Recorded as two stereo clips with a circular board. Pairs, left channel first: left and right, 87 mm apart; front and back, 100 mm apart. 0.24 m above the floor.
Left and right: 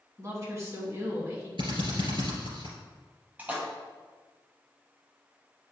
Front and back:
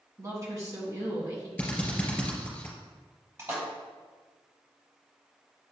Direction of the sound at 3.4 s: 145° right.